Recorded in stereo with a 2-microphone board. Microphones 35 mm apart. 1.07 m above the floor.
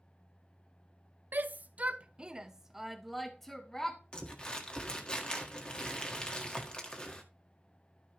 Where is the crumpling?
25° left (ahead or behind), 1.6 m.